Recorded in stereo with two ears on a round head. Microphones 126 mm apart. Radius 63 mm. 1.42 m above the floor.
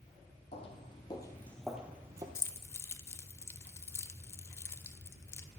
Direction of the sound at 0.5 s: 45° left (ahead or behind).